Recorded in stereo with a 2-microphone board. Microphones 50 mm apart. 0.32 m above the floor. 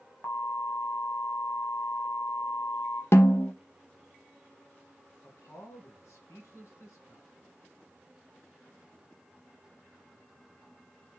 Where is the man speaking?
70° left (ahead or behind), 3.5 m.